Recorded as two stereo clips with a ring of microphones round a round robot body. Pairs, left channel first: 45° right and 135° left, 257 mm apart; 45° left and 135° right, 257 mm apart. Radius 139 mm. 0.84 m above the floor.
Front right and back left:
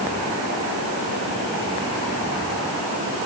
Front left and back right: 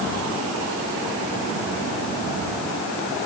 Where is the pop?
I don't hear a pop.